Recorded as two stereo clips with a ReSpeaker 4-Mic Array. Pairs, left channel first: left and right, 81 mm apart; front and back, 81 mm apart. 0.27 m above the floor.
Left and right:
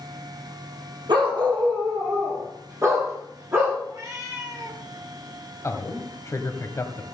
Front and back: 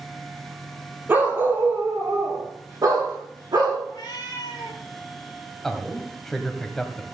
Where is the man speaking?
85° left, 1.8 m.